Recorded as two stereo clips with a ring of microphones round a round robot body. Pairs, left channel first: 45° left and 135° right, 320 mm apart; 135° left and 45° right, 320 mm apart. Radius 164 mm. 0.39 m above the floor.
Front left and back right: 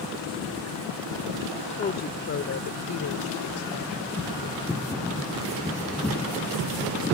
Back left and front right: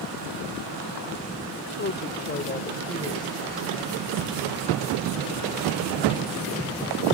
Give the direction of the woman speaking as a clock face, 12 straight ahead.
8 o'clock.